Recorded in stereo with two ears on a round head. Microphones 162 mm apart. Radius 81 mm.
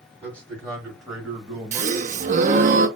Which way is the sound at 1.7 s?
40° right (ahead or behind).